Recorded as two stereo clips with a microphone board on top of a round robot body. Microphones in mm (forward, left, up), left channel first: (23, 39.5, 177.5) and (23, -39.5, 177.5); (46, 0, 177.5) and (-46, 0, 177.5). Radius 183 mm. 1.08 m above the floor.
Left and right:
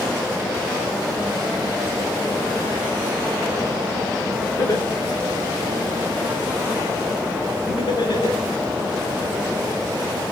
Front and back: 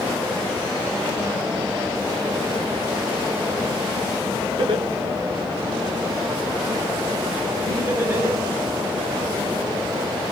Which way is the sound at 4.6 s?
145° left.